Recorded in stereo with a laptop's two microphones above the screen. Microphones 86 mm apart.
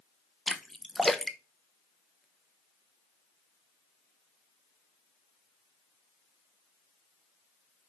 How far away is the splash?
About 0.8 m.